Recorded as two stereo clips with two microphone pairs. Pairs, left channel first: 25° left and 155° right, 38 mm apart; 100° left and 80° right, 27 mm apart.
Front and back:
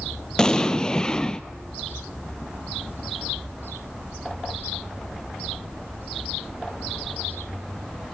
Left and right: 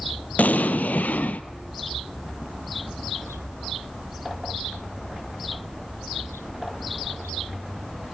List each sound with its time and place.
0.4 s an explosion: 100° left, 0.6 m